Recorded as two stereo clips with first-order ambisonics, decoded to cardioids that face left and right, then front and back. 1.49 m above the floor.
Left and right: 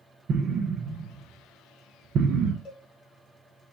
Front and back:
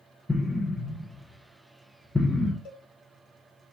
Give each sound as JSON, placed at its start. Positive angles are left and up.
{"t": 0.3, "sound": "an explosion", "azimuth_deg": -75, "distance_m": 0.7}
{"t": 2.6, "sound": "a cowbell", "azimuth_deg": 35, "distance_m": 1.0}